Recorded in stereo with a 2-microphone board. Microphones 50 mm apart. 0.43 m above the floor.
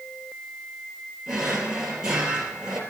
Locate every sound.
1.3 s a drawer: 10° right (ahead or behind), 3 m